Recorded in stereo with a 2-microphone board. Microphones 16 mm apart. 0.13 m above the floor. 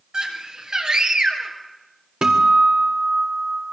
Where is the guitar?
80° right, 2.5 m.